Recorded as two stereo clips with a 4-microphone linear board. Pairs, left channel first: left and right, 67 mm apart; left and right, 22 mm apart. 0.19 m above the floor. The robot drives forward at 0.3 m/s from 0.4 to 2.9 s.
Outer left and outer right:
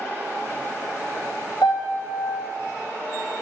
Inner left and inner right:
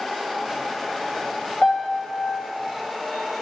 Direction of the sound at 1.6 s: 75° left (ahead or behind).